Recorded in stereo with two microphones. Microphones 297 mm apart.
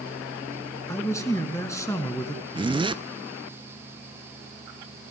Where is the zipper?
15° right (ahead or behind), 0.5 m.